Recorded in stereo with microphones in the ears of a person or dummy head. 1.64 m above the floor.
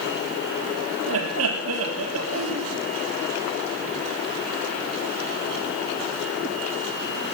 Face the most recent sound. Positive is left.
turn(degrees=-80)